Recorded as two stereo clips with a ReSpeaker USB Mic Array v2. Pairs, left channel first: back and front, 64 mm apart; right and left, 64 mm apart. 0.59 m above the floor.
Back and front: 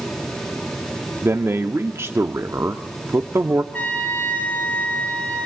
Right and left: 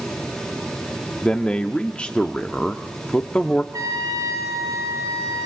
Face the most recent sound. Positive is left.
turn(degrees=115)